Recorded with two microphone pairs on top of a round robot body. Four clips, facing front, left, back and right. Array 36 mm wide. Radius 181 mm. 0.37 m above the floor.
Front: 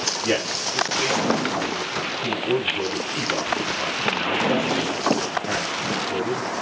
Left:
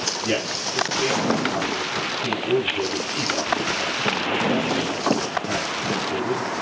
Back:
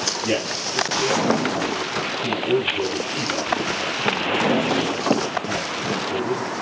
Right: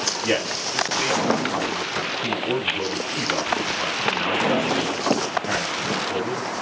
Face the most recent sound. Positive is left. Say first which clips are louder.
# right 2 dB, front 2 dB
turn(degrees=-60)